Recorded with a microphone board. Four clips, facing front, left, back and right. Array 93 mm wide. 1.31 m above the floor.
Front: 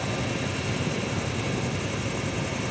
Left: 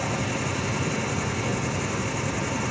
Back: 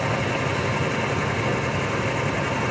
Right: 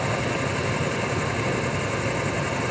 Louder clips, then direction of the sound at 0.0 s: Right 2 dB, back 5 dB; 140° right.